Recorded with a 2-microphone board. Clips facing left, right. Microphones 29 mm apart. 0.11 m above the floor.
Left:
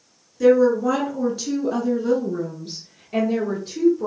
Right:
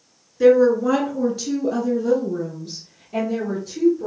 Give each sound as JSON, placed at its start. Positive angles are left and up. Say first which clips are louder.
{"t": 0.4, "sound": "a woman speaking", "louder": "right 1 dB", "side_deg": -25, "distance_m": 1.4}